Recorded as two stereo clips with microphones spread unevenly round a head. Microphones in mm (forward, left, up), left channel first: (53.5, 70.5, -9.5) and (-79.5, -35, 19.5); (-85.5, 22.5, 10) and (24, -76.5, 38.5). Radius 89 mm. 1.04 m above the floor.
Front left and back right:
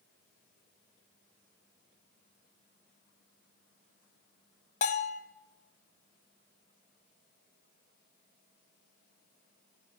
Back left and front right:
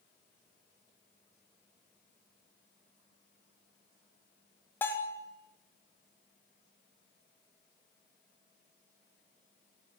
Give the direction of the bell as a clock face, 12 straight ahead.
10 o'clock.